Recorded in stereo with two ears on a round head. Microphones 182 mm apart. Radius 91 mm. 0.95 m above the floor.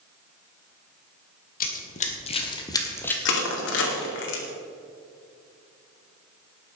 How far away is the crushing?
About 2.5 m.